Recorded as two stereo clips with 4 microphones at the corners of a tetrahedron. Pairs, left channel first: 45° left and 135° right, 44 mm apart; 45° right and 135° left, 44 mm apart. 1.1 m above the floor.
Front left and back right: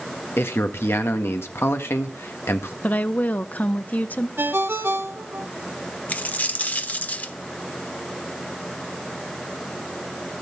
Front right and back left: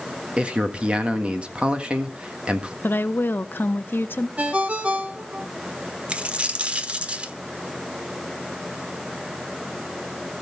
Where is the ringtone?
165° right, 1.1 m.